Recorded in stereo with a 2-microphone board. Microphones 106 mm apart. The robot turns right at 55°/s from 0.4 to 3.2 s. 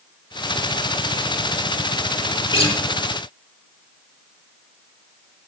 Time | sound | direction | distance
2.5 | a guitar | 50° left (ahead or behind) | 2.5 m